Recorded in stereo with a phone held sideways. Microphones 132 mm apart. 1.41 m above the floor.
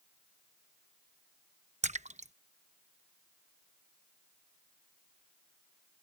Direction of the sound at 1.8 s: 60° right (ahead or behind).